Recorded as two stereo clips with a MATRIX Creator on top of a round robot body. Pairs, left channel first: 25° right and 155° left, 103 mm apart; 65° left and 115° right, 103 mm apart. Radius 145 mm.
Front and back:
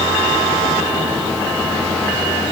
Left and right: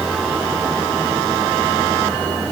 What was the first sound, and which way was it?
Only background noise.